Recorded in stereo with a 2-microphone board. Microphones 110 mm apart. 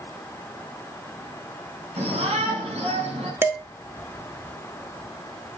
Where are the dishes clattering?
20° right (ahead or behind), 1.7 m.